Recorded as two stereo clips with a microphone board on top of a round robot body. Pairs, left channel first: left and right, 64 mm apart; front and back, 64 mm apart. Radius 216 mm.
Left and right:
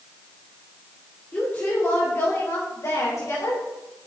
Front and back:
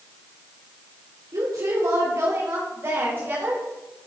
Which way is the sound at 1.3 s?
155° left.